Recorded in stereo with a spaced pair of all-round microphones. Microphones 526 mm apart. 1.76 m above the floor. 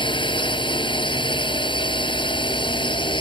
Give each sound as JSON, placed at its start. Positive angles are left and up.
{"t": 0.0, "sound": "a drone", "side_deg": 10}